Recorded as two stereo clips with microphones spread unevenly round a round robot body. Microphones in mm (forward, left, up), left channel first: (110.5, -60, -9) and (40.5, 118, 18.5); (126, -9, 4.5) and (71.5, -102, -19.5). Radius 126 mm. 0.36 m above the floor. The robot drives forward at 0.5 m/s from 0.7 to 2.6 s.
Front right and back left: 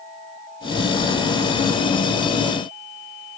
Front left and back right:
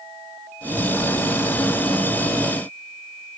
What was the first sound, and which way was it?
Only background noise.